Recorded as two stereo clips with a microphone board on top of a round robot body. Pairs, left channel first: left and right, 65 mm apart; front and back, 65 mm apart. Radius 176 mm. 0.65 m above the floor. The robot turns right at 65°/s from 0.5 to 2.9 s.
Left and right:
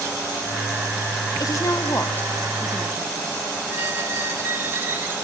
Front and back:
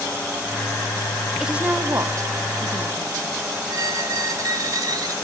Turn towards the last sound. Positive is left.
turn(degrees=-150)